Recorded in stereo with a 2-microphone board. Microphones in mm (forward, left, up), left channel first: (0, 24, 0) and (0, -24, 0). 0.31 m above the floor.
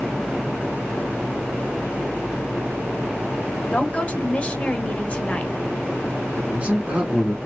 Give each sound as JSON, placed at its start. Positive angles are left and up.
{"t": 3.7, "sound": "a woman speaking", "side_deg": 25, "distance_m": 1.0}
{"t": 6.4, "sound": "a man speaking", "side_deg": -25, "distance_m": 3.0}